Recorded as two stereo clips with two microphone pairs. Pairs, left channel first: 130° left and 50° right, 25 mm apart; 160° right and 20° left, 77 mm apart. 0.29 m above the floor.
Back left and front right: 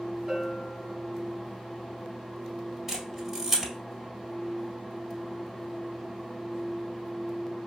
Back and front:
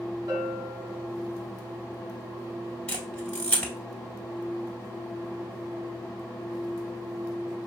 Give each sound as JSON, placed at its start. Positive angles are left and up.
{"t": 0.3, "sound": "a bell", "azimuth_deg": 30, "distance_m": 1.6}
{"t": 2.9, "sound": "a camera shutter", "azimuth_deg": -115, "distance_m": 1.6}